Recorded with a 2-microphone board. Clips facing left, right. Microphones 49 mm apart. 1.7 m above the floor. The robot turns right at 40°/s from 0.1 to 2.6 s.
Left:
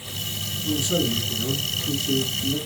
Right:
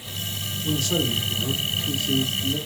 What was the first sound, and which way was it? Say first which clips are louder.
A man speaking: left 1 dB; 5° left.